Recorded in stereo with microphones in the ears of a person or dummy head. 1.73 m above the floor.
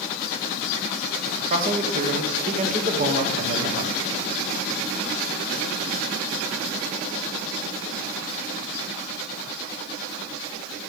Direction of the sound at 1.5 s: 45° right (ahead or behind).